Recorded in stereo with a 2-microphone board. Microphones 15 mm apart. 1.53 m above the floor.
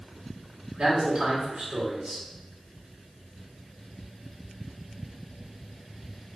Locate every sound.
0.8 s a man speaking: 85° right, 1.7 m